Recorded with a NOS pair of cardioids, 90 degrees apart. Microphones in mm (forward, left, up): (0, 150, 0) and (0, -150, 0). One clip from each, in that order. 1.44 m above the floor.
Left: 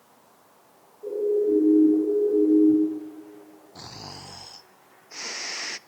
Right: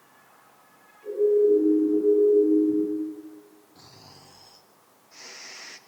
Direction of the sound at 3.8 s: 55° left.